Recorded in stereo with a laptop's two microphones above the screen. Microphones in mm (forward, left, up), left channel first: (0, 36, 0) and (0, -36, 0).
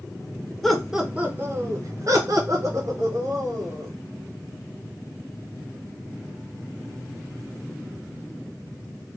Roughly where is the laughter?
Centre.